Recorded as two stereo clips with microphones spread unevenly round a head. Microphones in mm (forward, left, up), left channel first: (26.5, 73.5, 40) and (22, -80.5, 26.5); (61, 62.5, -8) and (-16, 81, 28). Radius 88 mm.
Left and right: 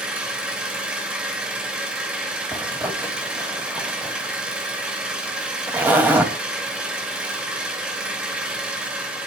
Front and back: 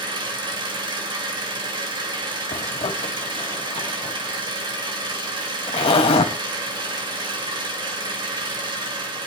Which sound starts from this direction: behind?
An engine running, at 0.0 s.